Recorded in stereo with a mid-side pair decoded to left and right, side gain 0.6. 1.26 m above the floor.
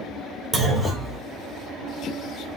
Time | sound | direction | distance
0.5 | a clunk | 35° right | 3 m